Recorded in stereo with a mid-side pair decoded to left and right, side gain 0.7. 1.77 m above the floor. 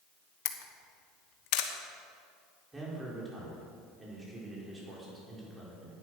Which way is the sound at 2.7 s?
20° right.